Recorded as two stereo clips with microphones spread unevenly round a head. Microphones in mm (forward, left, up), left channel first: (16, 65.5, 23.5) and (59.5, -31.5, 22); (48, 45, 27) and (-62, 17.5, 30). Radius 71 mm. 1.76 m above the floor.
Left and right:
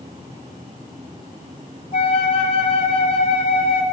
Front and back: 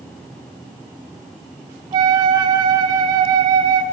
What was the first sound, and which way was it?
A flute, 150° left.